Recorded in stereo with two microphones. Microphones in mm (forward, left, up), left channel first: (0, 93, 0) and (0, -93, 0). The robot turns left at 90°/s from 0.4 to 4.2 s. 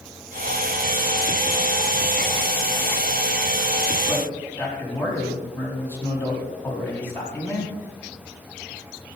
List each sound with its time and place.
4.1 s a man speaking: centre (ahead or behind), 3 m; by 7.7 s 10° left (ahead or behind), 3 m